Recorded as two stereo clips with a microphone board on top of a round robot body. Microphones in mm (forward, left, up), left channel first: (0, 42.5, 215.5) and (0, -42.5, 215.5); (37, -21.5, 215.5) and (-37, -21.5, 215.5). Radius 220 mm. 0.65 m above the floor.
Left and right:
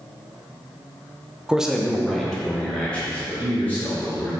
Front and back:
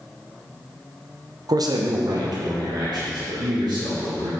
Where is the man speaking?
170° right, 0.7 m; by 4.3 s 160° left, 2 m.